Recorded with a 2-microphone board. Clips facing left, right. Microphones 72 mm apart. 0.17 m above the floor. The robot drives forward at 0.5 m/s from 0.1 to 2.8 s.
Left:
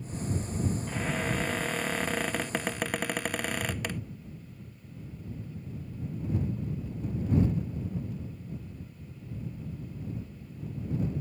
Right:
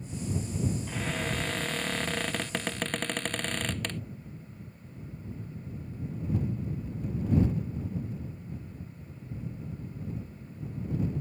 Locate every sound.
0.9 s a cupboard door: 10° left (ahead or behind)